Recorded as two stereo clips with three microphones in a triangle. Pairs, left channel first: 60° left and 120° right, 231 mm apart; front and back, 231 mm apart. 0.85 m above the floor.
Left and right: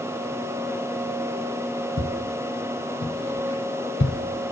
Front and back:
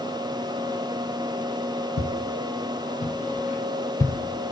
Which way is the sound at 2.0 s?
10° left.